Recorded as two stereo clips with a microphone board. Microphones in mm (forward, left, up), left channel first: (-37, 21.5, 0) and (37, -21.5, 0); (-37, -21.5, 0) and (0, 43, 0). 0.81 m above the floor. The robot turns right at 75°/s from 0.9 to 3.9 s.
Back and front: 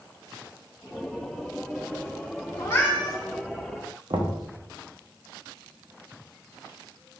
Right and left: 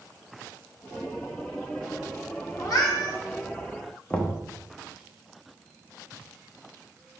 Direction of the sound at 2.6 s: 160° right.